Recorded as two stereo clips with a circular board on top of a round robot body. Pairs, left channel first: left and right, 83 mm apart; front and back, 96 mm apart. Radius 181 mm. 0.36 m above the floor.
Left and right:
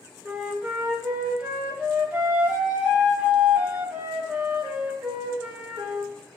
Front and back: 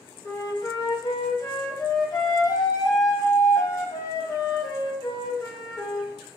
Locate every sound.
0.2 s a flute: 20° right, 1.1 m